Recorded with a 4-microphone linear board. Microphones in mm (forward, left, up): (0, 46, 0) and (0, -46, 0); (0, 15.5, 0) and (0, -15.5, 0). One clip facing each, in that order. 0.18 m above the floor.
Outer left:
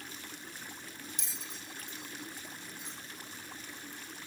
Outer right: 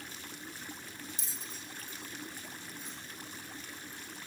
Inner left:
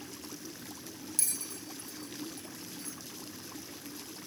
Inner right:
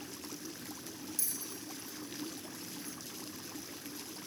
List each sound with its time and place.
1.2 s a bell: 70° left (ahead or behind), 0.9 m